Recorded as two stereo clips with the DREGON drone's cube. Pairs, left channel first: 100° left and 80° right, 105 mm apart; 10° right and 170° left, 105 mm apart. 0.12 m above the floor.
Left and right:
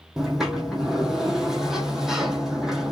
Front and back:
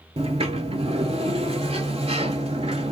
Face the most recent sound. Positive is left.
turn(degrees=-165)